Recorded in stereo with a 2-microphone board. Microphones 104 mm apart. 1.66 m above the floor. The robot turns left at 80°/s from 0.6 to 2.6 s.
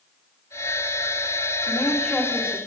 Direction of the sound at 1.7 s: 40° left.